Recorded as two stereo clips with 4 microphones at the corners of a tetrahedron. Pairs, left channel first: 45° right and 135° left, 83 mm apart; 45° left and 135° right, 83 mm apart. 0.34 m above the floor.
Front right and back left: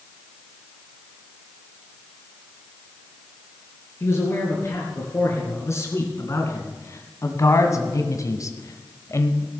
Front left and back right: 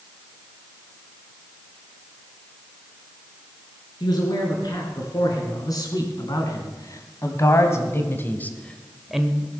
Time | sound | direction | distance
4.0 | a man speaking | 10° left | 4.5 m